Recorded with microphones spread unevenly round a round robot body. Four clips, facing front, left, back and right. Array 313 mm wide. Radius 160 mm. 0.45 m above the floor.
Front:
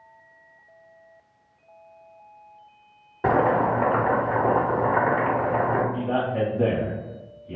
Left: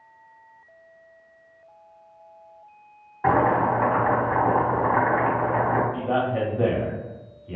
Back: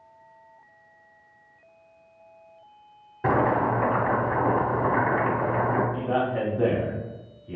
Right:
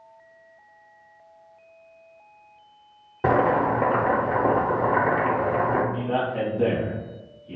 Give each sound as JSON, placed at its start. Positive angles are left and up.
{"t": 3.2, "sound": "boiling", "azimuth_deg": -85, "distance_m": 0.7}
{"t": 5.9, "sound": "a man speaking", "azimuth_deg": 100, "distance_m": 1.4}